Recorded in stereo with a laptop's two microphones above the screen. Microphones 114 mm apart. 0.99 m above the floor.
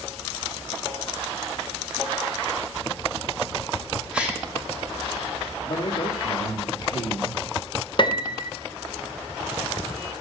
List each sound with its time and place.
4.1 s a gasp: 10° right (ahead or behind), 2 m
5.7 s a man speaking: 65° left (ahead or behind), 1.7 m
8.0 s a piano: 45° left (ahead or behind), 0.5 m